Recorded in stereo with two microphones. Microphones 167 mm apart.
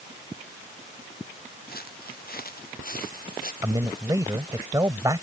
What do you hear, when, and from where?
1.7 s footsteps: 65° left (ahead or behind); by 3.5 s 60° left (ahead or behind)
3.6 s a man speaking: 20° right (ahead or behind)